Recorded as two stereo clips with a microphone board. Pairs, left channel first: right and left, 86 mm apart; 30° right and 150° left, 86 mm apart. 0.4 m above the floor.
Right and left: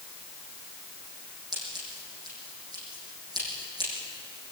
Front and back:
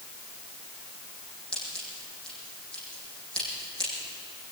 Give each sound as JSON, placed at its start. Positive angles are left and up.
{"t": 1.5, "sound": "scissors", "azimuth_deg": 50, "distance_m": 9.0}